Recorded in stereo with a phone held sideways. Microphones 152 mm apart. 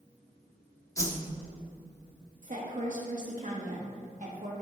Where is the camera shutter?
I don't hear a camera shutter.